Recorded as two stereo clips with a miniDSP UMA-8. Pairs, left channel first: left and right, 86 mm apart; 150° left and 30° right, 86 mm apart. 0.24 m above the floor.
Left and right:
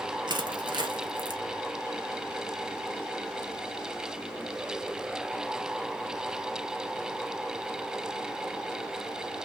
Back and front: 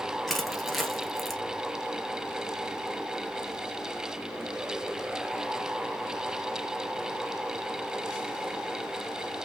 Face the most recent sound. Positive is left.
turn(degrees=-120)